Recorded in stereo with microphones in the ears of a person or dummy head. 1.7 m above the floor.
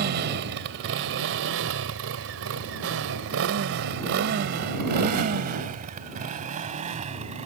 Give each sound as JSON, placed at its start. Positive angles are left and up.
{"t": 0.0, "sound": "a motorcycle", "side_deg": -55}